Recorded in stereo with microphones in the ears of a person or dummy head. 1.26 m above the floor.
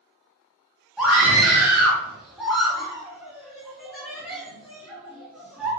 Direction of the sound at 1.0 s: 5° right (ahead or behind).